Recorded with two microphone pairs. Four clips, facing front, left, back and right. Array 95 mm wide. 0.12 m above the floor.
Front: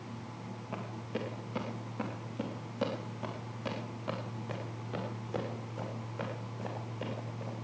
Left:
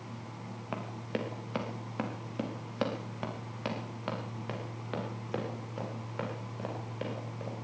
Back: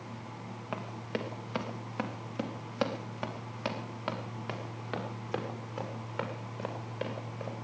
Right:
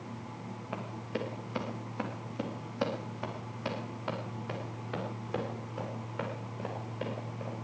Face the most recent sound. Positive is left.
turn(degrees=180)